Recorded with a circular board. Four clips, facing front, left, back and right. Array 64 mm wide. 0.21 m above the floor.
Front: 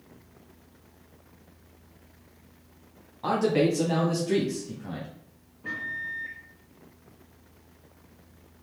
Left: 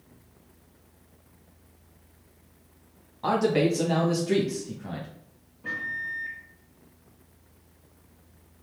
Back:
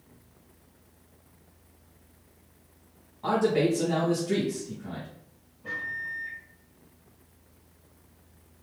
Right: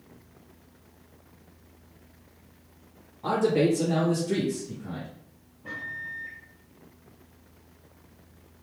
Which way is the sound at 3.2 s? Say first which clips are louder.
Even, even; 70° left.